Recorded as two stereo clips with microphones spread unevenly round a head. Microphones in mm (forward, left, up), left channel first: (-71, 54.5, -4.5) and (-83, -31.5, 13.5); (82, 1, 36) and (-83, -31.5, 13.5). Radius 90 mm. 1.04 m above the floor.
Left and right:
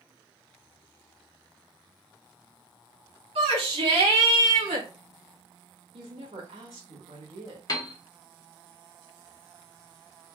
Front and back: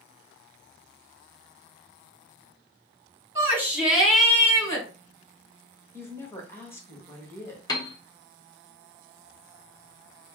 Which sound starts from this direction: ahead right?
A woman speaking, at 5.9 s.